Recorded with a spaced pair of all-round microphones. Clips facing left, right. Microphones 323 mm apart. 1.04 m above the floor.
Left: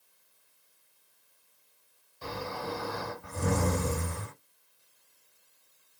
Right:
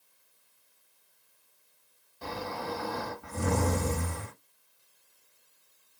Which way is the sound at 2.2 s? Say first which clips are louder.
Even; 65° right (ahead or behind).